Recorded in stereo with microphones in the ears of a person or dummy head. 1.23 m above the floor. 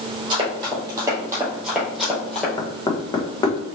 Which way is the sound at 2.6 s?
20° left (ahead or behind).